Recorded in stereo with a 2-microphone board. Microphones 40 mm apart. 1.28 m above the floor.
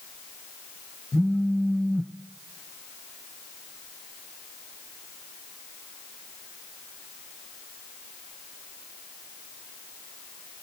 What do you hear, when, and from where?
1.1 s a phone buzzing: 30° left (ahead or behind), 0.7 m